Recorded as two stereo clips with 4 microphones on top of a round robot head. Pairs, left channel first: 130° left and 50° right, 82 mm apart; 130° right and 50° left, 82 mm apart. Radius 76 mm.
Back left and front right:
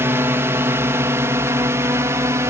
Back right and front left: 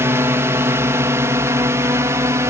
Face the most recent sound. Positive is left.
turn(degrees=0)